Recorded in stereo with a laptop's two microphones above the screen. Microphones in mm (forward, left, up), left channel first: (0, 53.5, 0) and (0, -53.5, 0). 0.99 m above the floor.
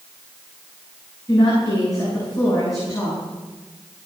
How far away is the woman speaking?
About 9.5 m.